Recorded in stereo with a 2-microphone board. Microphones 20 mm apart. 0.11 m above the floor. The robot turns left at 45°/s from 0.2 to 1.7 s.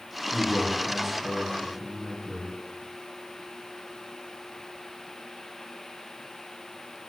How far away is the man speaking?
About 1.8 m.